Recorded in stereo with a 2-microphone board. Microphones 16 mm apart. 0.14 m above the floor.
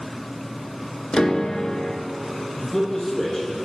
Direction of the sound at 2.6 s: 20° left (ahead or behind).